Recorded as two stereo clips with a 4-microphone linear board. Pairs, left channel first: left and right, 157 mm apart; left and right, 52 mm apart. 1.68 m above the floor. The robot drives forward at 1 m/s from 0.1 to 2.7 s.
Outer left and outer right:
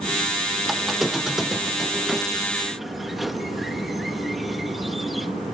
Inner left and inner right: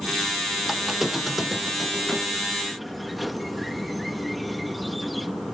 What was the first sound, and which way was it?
A squeak, centre (ahead or behind).